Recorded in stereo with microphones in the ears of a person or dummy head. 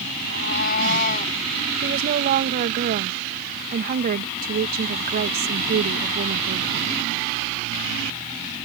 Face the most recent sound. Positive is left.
turn(degrees=-45)  # may be behind; listen again after turning